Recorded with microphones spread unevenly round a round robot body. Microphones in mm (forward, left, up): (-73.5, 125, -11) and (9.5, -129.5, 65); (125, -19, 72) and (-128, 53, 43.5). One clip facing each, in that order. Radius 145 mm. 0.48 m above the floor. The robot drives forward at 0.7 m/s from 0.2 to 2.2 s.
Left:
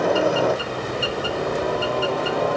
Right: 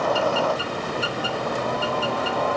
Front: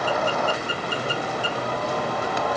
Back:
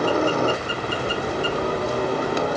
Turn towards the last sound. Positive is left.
turn(degrees=140)